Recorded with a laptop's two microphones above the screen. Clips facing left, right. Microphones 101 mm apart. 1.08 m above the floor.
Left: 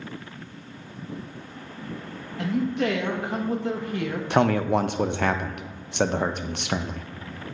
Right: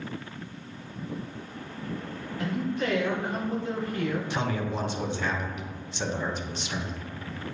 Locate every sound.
2.4 s a man speaking: 70° left (ahead or behind), 1.4 m
4.3 s a man speaking: 65° left (ahead or behind), 0.6 m